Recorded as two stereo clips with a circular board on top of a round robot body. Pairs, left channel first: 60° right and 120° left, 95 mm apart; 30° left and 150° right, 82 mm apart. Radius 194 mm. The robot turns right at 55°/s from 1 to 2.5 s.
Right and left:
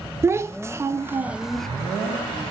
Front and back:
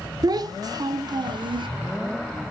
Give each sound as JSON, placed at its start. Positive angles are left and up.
{"t": 0.2, "sound": "a child speaking", "azimuth_deg": 180, "distance_m": 0.5}